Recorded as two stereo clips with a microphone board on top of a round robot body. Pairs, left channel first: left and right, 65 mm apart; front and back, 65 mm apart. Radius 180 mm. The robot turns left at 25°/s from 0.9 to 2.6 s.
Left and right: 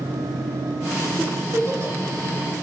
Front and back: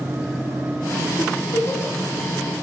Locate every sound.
1.2 s a giggle: 30° right, 1.2 m; by 1.9 s 50° right, 1.2 m